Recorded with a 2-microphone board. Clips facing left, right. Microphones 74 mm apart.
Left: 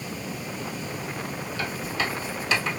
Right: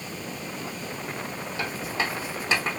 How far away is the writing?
About 2.5 m.